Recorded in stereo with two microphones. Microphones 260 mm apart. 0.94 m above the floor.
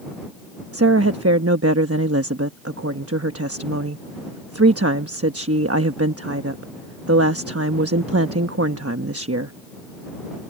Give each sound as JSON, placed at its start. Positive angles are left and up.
{"t": 0.7, "sound": "a woman speaking", "side_deg": -65}